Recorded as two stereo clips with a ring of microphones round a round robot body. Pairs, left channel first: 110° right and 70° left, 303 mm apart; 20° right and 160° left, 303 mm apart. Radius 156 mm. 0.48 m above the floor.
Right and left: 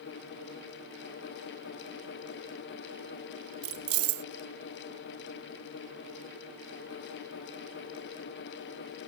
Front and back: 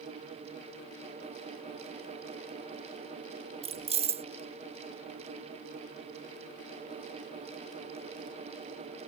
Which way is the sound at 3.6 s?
90° left.